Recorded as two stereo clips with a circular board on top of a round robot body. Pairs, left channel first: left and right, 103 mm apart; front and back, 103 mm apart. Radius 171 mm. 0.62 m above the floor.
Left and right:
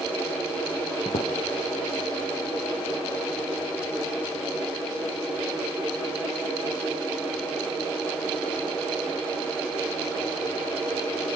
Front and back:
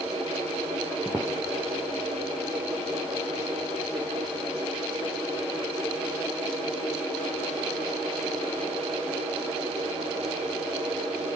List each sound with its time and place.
1.1 s footsteps: 105° left, 1.1 m